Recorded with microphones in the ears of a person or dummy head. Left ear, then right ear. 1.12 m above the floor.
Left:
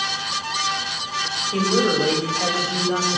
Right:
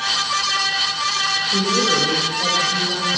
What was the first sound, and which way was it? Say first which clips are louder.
A woman speaking: left 1 dB; 60° left (ahead or behind).